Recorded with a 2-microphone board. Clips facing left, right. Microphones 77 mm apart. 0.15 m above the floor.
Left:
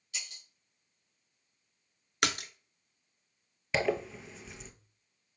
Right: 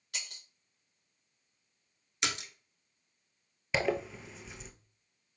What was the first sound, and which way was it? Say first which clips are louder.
Breaking glass: right 1 dB; 50° right (ahead or behind).